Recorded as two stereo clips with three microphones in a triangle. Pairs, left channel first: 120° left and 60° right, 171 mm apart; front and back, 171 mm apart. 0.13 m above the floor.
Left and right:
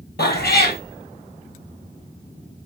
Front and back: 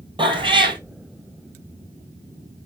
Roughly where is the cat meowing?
Behind left.